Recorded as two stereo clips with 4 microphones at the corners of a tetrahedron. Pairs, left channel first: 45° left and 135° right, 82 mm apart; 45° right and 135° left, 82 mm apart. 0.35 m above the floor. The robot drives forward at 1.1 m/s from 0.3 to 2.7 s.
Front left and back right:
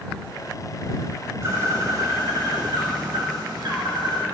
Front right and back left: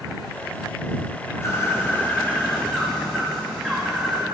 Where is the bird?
90° right, 2.5 m; by 4.2 s 125° right, 2.5 m.